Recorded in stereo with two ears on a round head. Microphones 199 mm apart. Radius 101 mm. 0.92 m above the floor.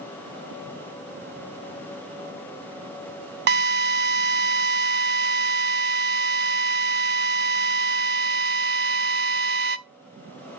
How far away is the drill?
About 0.7 m.